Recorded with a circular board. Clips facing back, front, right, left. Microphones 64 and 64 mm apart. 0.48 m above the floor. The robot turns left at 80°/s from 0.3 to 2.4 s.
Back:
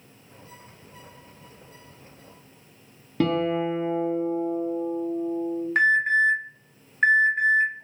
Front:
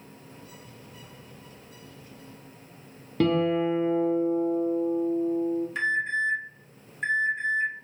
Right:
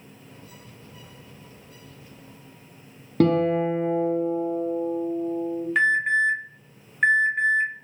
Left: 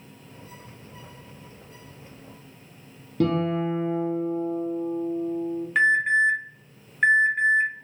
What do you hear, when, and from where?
3.2 s a guitar: 95° right, 0.6 m
5.8 s an alarm: straight behind, 0.6 m